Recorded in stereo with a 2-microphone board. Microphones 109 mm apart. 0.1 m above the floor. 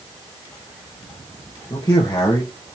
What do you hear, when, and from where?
1.7 s a man speaking: 35° left (ahead or behind), 2.5 m